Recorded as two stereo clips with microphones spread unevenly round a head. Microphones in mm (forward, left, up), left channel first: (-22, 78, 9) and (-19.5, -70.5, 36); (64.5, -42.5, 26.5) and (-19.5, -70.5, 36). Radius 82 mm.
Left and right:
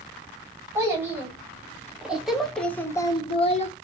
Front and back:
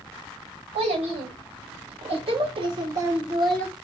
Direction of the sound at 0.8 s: 165° right.